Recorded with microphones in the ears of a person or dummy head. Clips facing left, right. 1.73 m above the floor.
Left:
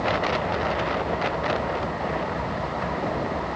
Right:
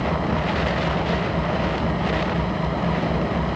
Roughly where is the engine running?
Right.